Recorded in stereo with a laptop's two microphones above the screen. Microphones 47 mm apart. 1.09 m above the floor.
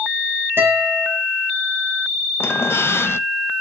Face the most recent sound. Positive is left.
turn(degrees=60)  # may be behind; listen again after turning